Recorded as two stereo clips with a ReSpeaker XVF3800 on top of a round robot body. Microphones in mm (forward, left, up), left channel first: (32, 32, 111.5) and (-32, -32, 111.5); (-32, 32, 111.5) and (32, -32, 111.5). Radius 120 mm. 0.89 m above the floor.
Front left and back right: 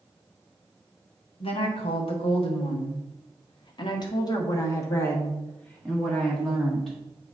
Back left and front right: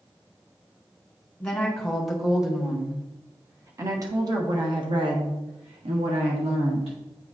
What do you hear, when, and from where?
1.4 s a woman speaking: 50° left, 2 m; by 7.0 s 45° right, 2 m